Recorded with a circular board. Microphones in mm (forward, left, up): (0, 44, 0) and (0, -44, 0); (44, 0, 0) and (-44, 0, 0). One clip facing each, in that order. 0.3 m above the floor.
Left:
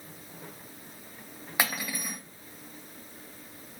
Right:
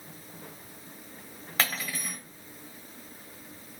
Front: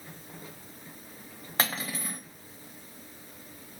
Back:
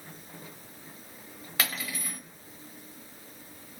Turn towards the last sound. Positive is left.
turn(degrees=25)